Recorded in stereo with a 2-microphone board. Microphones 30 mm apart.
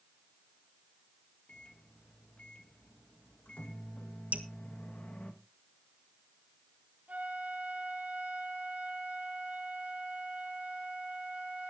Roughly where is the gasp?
No gasp in this recording.